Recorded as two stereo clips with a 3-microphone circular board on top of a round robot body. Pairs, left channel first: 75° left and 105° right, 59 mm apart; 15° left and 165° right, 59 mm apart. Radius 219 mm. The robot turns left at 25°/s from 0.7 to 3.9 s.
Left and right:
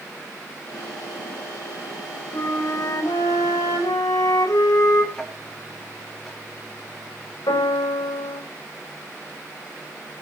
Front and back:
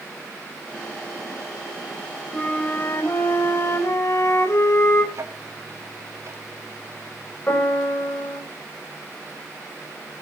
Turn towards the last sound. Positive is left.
turn(degrees=75)